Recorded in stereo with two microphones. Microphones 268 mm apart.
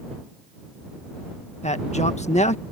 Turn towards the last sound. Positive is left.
turn(degrees=25)  # may be behind; listen again after turning